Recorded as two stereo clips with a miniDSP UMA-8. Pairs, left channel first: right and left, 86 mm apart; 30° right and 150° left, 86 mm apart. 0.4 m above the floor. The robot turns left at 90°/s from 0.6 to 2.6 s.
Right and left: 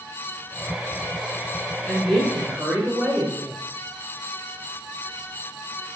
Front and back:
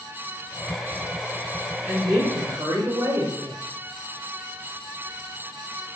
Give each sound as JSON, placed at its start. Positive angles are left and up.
{"t": 1.9, "sound": "a woman speaking", "azimuth_deg": -135, "distance_m": 1.2}